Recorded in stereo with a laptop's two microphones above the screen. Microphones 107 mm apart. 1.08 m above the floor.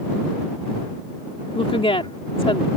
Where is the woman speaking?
60° left (ahead or behind).